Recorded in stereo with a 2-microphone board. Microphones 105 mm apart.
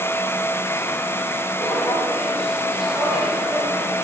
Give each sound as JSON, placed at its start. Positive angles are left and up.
{"t": 1.6, "sound": "footsteps", "side_deg": 25, "distance_m": 2.0}